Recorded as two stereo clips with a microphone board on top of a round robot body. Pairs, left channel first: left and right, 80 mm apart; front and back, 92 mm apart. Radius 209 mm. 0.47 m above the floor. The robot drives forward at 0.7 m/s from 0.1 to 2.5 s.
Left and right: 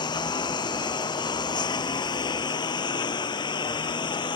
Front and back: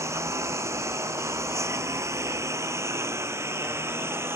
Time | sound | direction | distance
0.0 | a lawn mower | 120° left | ?